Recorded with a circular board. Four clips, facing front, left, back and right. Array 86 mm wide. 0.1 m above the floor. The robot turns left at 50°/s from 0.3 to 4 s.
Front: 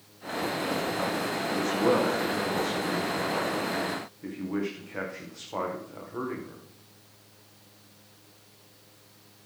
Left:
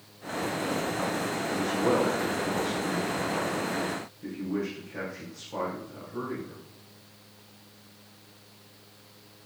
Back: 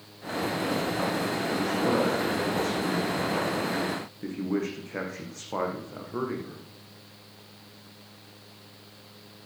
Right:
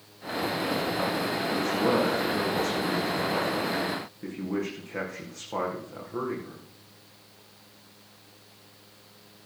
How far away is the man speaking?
About 5 m.